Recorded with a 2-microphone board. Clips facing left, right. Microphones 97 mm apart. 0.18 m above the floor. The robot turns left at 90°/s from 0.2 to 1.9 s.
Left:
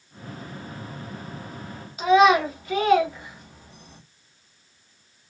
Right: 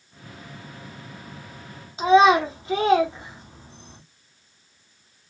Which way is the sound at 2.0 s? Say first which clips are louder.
Right 1 dB; 30° right (ahead or behind).